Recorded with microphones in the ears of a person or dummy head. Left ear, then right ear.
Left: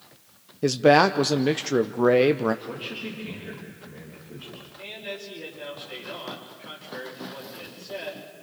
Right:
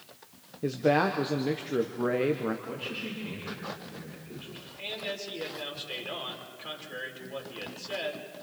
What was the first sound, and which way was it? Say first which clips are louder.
A man speaking: left 8 dB; 75° left (ahead or behind).